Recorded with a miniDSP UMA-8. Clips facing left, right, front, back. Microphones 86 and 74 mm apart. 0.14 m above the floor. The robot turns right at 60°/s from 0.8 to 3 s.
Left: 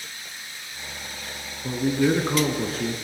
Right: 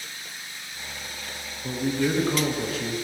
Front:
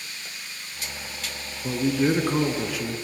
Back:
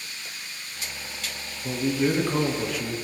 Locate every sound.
1.6 s a man speaking: 15° left, 1.3 m; by 3.0 s 95° left, 1.3 m